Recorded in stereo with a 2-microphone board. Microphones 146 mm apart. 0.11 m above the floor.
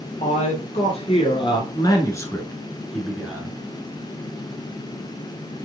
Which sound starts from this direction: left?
A man speaking, at 0.2 s.